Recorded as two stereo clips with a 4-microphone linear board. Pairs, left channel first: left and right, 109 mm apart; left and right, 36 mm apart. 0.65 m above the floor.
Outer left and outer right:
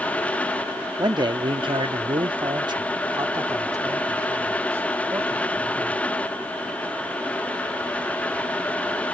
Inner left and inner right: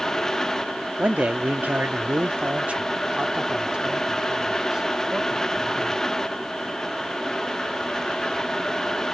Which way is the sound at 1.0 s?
35° right (ahead or behind).